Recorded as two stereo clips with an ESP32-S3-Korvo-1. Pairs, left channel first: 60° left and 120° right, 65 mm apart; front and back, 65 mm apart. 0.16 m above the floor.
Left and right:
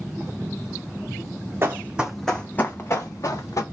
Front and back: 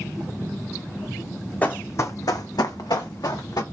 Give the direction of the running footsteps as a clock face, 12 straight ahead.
2 o'clock.